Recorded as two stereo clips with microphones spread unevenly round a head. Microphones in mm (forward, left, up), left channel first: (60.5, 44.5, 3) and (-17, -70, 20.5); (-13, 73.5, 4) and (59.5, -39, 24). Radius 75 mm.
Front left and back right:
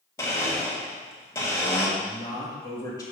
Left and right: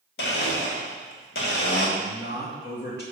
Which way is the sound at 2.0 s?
125° left.